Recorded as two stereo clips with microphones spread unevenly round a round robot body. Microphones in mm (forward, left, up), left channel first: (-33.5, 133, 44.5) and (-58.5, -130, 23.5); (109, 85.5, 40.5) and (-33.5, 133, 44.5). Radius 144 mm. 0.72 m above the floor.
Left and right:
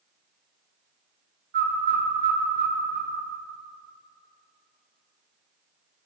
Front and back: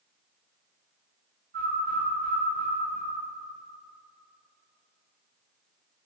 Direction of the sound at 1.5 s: 145° right.